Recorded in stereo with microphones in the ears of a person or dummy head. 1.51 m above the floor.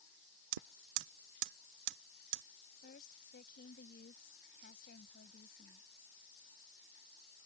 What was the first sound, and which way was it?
Hammering, 75° right (ahead or behind).